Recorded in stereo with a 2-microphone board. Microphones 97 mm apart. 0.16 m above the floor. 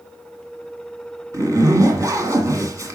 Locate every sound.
1.3 s a zipper: 35° right (ahead or behind), 1.6 m